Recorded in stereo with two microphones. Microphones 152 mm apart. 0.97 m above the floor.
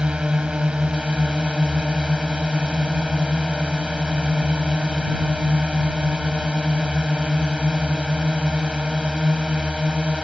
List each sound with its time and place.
0.0 s a drone: 5° right (ahead or behind)